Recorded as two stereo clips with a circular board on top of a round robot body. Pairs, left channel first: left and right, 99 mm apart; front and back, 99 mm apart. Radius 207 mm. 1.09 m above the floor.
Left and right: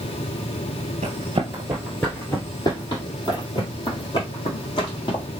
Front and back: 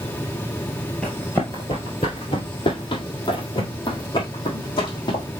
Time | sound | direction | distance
1.0 | running footsteps | 85° right | 1.2 m